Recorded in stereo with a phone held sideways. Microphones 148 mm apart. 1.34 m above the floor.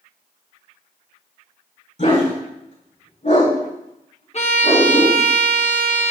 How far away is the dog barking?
About 4 m.